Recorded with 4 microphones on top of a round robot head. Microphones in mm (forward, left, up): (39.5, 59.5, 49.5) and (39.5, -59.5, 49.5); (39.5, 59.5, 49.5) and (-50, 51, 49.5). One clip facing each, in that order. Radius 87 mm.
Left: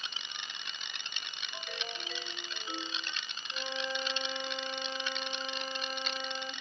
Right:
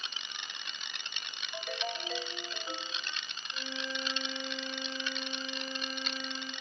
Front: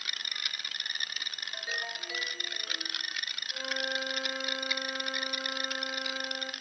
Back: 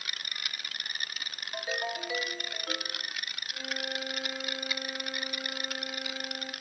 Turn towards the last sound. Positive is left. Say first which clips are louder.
# left 3 dB, front 2 dB
turn(degrees=60)